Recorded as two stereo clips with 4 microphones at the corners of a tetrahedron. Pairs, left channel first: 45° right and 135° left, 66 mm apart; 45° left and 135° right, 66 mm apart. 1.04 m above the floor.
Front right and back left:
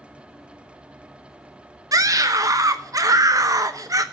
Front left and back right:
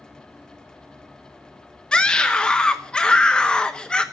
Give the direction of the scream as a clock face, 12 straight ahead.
8 o'clock.